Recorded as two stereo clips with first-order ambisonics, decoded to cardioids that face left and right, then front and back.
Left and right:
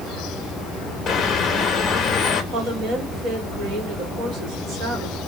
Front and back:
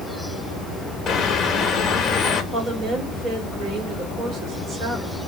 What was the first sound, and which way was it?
A bird, 40° left.